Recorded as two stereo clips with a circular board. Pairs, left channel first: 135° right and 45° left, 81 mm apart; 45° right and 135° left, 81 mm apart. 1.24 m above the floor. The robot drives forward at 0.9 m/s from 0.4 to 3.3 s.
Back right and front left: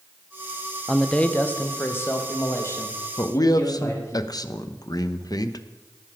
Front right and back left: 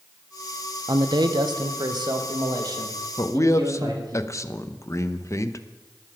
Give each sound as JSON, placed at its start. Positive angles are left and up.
{"t": 0.9, "sound": "a man speaking", "azimuth_deg": 140, "distance_m": 0.8}
{"t": 3.2, "sound": "a man speaking", "azimuth_deg": -90, "distance_m": 0.8}